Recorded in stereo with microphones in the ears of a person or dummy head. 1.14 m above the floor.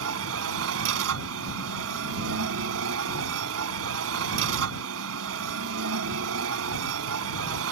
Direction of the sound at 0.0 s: 80° right.